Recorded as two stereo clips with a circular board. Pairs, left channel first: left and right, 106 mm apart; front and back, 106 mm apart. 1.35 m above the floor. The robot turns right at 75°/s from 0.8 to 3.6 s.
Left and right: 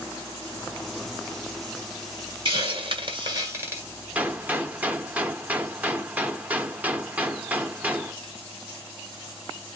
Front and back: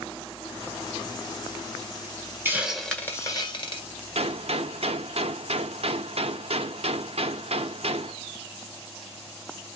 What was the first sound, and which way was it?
A hiss, 115° right.